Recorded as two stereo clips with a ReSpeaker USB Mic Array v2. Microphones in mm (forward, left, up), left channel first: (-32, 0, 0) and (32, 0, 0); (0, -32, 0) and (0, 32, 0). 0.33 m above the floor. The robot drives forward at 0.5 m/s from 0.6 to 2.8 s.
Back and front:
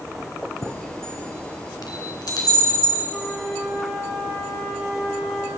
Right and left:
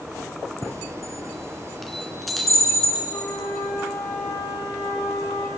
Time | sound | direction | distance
0.6 | a chime | straight behind | 1.2 m
3.1 | a flute | 95° right | 5.5 m